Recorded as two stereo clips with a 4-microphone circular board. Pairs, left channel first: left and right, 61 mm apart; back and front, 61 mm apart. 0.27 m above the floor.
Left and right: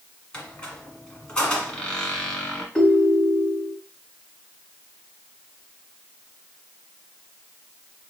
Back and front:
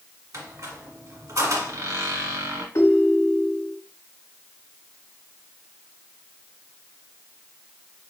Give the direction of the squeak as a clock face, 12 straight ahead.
11 o'clock.